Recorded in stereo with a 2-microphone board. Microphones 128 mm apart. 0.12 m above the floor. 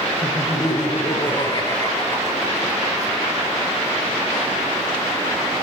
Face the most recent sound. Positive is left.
turn(degrees=10)  # may be behind; listen again after turning